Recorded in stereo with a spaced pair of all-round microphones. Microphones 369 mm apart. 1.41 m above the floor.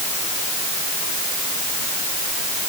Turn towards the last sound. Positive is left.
No sound to turn to.